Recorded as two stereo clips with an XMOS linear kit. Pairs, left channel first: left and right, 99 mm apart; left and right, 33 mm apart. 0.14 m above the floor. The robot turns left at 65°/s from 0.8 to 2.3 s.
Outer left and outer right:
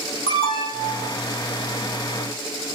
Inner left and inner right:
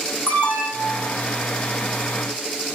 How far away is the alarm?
About 8 m.